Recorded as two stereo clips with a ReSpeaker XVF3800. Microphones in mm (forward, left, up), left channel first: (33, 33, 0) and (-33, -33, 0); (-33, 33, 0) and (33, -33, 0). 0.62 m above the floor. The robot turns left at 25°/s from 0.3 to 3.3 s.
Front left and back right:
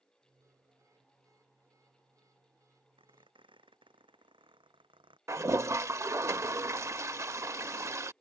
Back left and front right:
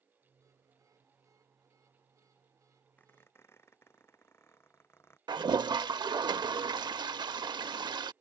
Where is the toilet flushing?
80° right.